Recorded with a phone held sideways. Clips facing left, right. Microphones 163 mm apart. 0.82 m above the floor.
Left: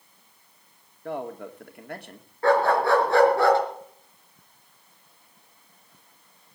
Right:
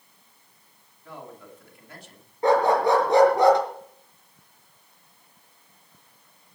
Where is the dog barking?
20° right (ahead or behind), 4.5 m.